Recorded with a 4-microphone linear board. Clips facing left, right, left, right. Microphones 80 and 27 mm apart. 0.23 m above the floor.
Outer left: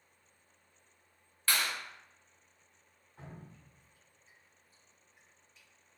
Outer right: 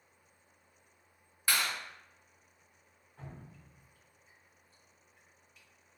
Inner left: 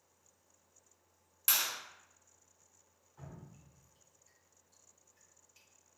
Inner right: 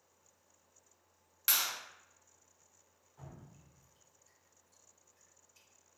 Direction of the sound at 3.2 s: 5° left (ahead or behind).